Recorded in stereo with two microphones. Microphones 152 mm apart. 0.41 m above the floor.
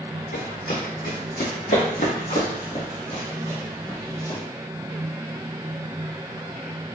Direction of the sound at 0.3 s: 75° left (ahead or behind).